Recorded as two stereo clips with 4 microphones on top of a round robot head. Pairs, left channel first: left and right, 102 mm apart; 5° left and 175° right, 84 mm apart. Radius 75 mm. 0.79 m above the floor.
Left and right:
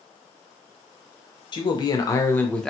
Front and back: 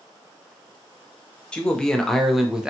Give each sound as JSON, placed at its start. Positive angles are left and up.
{"t": 1.5, "sound": "a man speaking", "azimuth_deg": 80, "distance_m": 0.8}